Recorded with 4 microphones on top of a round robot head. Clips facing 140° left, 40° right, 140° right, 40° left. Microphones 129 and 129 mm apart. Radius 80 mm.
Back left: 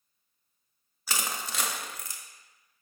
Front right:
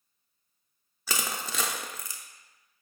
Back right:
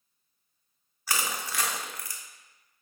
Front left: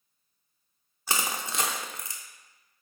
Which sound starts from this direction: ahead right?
Crushing, at 1.1 s.